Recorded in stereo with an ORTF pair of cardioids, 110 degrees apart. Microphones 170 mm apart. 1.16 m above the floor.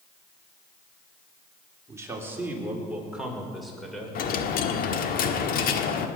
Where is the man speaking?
20° right, 3.5 m; by 4.2 s 5° left, 5 m.